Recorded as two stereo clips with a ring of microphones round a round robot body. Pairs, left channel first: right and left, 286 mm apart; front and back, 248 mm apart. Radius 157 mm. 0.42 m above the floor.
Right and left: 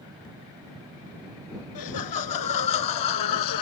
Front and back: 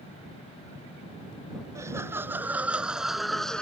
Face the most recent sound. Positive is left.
turn(degrees=-85)